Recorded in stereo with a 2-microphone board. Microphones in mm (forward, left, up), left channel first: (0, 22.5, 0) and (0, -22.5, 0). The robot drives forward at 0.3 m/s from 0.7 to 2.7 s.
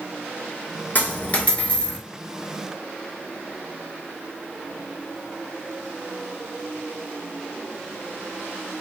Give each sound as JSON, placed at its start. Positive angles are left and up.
{"t": 0.9, "sound": "a dropped coin", "side_deg": 40, "distance_m": 0.7}